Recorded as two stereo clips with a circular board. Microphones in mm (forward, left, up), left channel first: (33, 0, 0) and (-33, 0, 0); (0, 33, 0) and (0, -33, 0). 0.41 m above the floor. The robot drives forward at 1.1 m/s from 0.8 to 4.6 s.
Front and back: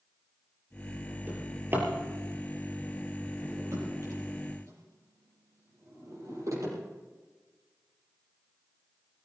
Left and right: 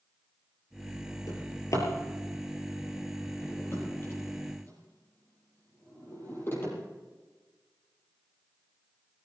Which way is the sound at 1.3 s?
120° left.